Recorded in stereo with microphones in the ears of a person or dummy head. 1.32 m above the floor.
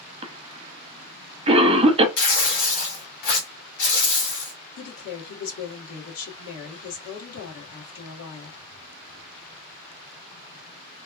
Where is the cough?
30° right (ahead or behind), 0.6 m.